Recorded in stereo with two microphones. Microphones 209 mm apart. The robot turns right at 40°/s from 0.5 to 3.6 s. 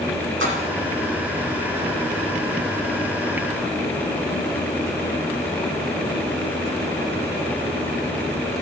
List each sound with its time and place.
0.4 s a splash: 70° right (ahead or behind), 6 m; by 0.6 s 75° right (ahead or behind), 6 m